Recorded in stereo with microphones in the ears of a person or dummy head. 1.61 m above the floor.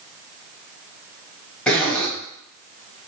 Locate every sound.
1.7 s a zipper: 10° left (ahead or behind), 0.7 m